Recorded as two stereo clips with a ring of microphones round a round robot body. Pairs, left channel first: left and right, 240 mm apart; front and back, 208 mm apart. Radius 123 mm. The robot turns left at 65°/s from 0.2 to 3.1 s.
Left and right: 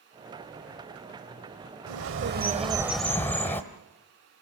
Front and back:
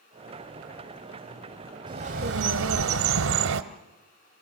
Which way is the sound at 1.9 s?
110° right.